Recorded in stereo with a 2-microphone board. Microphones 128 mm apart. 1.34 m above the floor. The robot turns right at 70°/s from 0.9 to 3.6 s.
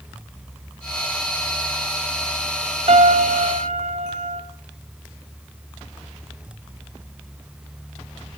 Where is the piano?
125° right, 1.8 m; by 4.4 s 70° right, 1.8 m.